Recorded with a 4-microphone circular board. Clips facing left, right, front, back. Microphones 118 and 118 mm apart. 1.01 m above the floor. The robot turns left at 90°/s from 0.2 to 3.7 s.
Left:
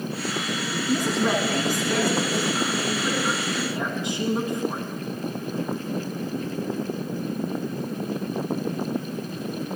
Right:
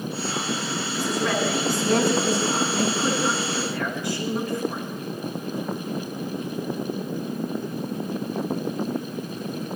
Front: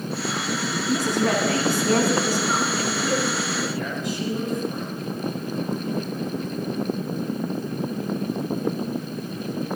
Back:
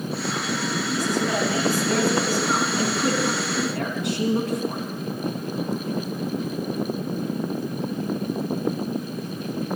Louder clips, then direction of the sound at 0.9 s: Left 3 dB, front 4 dB; 50° left.